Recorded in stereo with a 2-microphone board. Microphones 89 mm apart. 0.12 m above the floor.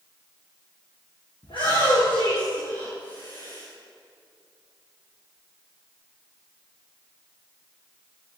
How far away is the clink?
I don't hear a clink.